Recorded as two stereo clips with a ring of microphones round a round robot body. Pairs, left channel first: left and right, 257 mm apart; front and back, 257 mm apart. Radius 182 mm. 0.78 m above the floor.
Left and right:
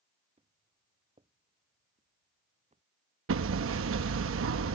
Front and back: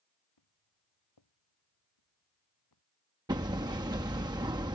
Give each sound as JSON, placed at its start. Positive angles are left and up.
{"t": 0.4, "sound": "footsteps", "azimuth_deg": -20}
{"t": 3.3, "sound": "hammering", "azimuth_deg": -105}